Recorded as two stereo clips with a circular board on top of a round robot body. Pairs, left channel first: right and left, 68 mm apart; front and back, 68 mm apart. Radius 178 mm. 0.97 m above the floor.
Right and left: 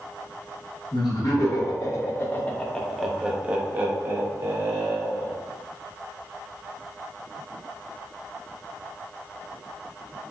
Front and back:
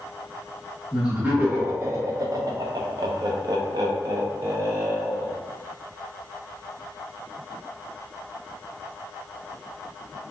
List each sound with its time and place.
0.9 s laughter: 105° right, 1.3 m; by 5.3 s 135° left, 1.8 m